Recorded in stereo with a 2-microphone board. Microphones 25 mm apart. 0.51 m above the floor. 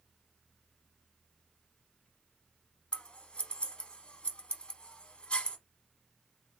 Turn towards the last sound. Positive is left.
turn(degrees=40)  # may be behind; listen again after turning